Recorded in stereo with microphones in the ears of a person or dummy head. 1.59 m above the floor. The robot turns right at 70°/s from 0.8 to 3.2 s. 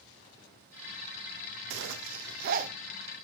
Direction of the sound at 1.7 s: 70° right (ahead or behind).